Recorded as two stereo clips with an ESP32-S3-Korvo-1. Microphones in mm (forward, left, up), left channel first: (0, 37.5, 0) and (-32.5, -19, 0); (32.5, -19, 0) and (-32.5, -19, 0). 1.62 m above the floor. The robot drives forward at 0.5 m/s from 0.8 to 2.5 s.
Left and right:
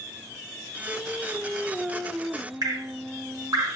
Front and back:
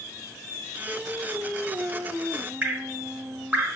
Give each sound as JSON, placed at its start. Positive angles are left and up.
{"t": 0.9, "sound": "singing", "azimuth_deg": 90, "distance_m": 0.7}
{"t": 2.6, "sound": "dripping", "azimuth_deg": -115, "distance_m": 0.6}